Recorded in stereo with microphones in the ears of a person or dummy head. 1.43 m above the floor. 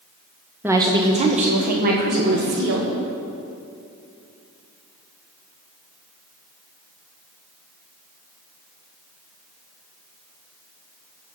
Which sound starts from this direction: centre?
A woman speaking, at 0.6 s.